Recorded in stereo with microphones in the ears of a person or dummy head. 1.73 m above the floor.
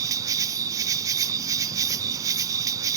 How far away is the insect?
About 0.8 m.